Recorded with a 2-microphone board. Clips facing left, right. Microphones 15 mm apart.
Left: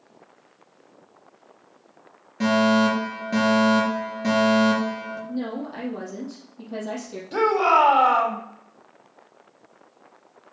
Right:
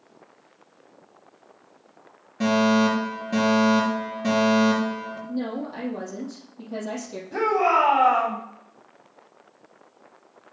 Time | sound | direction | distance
2.4 | a fire alarm | 10° left (ahead or behind) | 3.5 m
5.3 | a woman speaking | 5° left (ahead or behind) | 4 m
7.3 | a shout | 65° left (ahead or behind) | 3.5 m